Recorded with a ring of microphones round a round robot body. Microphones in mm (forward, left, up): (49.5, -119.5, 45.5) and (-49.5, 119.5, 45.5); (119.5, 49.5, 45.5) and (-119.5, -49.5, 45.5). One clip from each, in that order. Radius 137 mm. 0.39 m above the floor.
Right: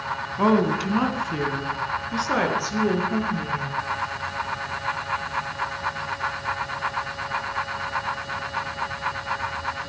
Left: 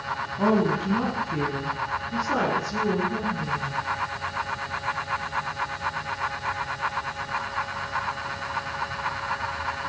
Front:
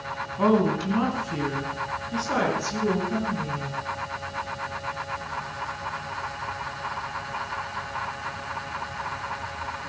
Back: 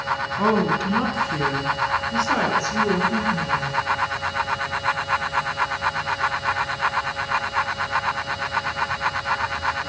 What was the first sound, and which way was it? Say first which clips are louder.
A woman speaking: right 3 dB, even; 75° right.